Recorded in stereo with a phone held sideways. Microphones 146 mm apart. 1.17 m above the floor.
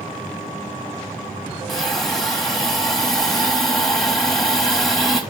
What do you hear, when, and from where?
1.7 s a hiss: centre (ahead or behind), 1.1 m